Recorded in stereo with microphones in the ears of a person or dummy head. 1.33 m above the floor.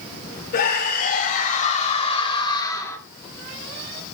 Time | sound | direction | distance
0.5 | a scream | 60° left (ahead or behind) | 4 m